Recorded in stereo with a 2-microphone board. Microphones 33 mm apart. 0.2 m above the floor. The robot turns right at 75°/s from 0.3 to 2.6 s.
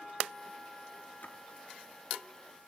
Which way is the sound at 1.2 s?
65° left (ahead or behind).